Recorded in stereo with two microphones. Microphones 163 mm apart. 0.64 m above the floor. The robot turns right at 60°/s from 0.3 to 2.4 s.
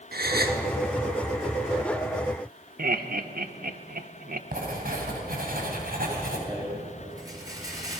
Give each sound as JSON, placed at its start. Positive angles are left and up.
{"t": 0.1, "sound": "a gasp", "side_deg": -70, "distance_m": 1.5}
{"t": 2.8, "sound": "laughter", "side_deg": -65, "distance_m": 1.2}
{"t": 4.5, "sound": "writing", "side_deg": -65, "distance_m": 4.0}
{"t": 6.5, "sound": "a rattle", "side_deg": -20, "distance_m": 5.0}